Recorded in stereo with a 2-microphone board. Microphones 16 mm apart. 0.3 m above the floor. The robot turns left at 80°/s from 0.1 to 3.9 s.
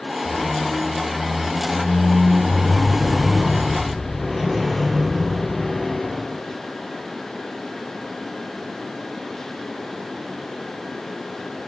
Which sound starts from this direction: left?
A squeak, at 0.2 s.